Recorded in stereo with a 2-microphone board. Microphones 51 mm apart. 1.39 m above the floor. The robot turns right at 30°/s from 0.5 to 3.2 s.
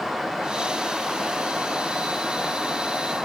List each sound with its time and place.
Only background noise.